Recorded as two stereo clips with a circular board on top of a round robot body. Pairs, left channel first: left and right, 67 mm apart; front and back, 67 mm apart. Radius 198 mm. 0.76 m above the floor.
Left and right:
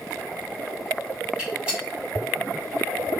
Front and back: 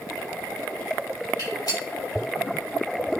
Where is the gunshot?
15° right, 1.9 m.